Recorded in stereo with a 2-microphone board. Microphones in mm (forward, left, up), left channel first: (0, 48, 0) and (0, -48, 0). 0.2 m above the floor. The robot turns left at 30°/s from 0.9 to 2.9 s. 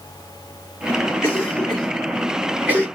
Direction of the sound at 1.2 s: 25° left (ahead or behind).